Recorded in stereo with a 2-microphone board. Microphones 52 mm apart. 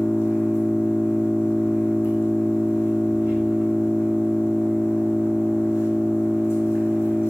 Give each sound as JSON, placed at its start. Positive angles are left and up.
{"t": 0.0, "sound": "an engine running", "side_deg": 50, "distance_m": 2.5}